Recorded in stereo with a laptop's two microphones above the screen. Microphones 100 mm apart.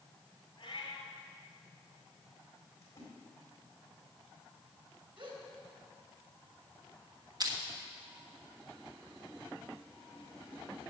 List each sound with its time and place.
0.6 s a cat meowing: 45° left (ahead or behind), 2.5 m
2.8 s a splash: 30° left (ahead or behind), 4 m
5.2 s a gasp: 60° right (ahead or behind), 3 m
7.4 s crushing: 40° right (ahead or behind), 1.2 m